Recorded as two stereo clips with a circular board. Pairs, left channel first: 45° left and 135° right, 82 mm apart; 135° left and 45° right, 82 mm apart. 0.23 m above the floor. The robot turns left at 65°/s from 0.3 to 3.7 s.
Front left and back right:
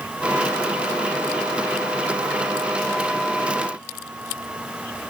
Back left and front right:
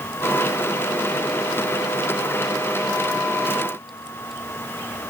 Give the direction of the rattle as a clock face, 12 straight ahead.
I don't hear a rattle.